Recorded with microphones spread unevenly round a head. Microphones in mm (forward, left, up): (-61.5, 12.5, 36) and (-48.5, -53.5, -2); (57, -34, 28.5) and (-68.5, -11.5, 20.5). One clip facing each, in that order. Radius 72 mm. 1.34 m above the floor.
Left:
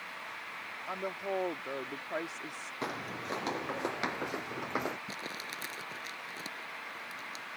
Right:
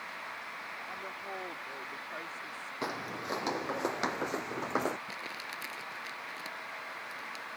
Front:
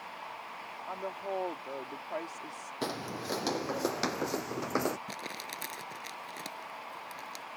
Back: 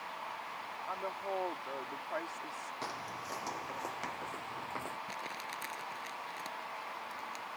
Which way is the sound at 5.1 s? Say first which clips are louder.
Even, front 1 dB; 45° left.